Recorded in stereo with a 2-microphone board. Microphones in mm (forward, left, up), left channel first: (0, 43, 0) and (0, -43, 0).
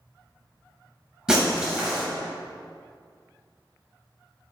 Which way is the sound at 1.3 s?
10° right (ahead or behind).